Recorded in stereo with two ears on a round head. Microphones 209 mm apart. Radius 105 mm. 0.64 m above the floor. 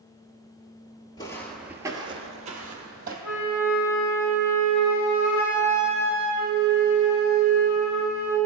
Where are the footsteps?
20° left (ahead or behind), 0.6 m; by 3.1 s 40° right (ahead or behind), 1.2 m.